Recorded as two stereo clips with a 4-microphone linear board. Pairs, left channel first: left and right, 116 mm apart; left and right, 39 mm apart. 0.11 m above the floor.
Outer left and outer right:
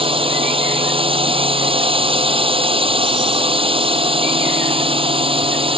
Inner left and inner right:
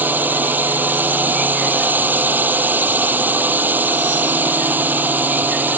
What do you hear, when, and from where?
0.0 s a drone: 55° right (ahead or behind)